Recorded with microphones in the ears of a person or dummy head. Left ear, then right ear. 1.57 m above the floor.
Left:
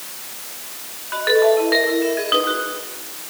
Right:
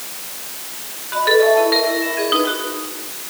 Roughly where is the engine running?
No engine running in this recording.